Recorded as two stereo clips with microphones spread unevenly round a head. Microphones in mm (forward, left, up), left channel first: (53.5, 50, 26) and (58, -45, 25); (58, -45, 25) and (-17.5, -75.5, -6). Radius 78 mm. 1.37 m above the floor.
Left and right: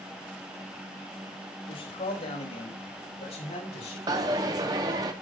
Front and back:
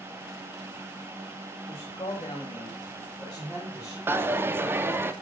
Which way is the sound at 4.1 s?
80° right.